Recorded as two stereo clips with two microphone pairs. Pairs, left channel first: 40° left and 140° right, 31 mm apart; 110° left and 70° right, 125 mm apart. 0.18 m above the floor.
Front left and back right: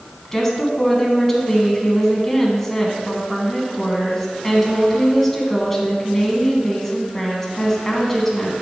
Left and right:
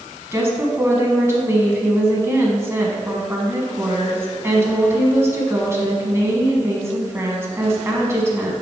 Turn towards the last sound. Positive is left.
turn(degrees=-30)